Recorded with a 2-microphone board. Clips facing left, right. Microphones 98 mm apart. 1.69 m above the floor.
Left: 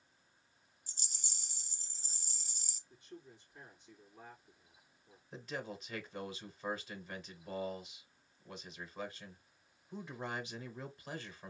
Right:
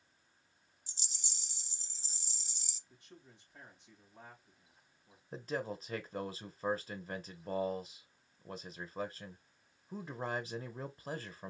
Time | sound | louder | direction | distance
0.9 | a rattle | even | 45° left (ahead or behind) | 0.6 m
2.9 | a man speaking | left 5 dB | 60° right (ahead or behind) | 2.5 m
5.3 | a man speaking | right 5 dB | 35° right (ahead or behind) | 0.8 m